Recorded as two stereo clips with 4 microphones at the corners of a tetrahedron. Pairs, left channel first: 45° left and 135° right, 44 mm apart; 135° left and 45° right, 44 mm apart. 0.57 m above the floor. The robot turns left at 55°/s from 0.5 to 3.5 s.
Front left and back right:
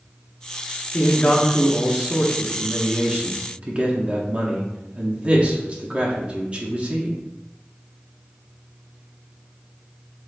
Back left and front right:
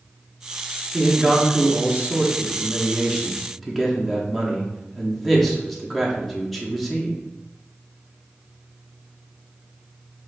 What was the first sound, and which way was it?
A man speaking, straight ahead.